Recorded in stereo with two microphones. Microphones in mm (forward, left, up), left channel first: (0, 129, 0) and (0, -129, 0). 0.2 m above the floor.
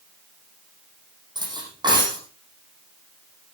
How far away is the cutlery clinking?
About 5 m.